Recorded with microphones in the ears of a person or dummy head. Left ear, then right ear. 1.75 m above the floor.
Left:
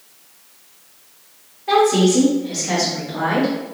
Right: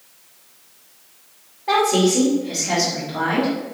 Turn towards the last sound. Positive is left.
turn(degrees=5)  # may be behind; listen again after turning